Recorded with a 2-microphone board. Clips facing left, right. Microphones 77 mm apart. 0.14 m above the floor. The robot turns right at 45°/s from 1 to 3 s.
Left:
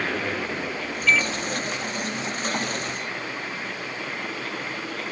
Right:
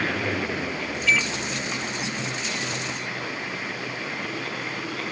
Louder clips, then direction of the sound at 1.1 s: Left 2 dB; 40° right (ahead or behind).